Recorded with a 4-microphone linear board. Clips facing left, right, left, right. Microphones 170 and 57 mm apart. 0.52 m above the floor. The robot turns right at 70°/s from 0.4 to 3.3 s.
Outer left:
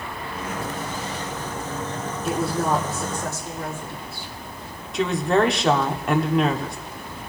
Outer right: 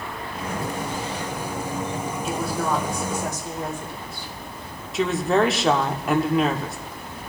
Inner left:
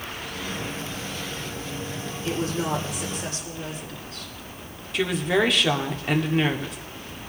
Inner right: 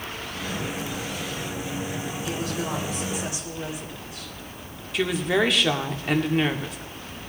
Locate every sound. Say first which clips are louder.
2.2 s a woman speaking: outer left 4 dB, inner left 5 dB; 125° left, 2 m; by 4.3 s 160° right, 2 m
4.9 s a woman speaking: even, even; centre (ahead or behind), 0.8 m